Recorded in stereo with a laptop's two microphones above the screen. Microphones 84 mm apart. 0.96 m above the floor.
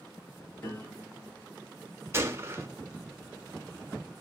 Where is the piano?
25° left (ahead or behind), 7 m.